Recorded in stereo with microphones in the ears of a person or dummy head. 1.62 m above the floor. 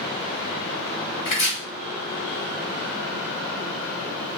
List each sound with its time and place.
1.2 s chopping: 40° left (ahead or behind), 2 m